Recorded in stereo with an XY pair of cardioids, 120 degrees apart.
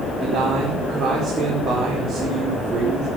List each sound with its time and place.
0.2 s a man speaking: 50° right, 4.5 m